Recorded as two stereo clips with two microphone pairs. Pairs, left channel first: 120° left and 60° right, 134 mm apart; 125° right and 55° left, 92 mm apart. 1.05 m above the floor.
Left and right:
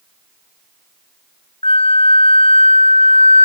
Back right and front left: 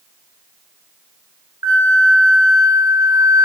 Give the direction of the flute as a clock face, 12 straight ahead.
9 o'clock.